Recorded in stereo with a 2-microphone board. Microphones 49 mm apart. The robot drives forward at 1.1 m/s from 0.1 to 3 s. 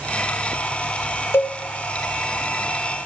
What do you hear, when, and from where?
1.3 s a cowbell: 60° left (ahead or behind), 0.8 m; by 1.6 s 55° left (ahead or behind), 0.8 m